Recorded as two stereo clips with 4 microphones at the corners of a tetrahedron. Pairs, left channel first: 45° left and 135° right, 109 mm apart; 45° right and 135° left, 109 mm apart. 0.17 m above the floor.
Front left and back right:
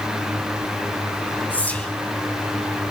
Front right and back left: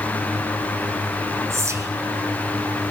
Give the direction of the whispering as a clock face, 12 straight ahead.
8 o'clock.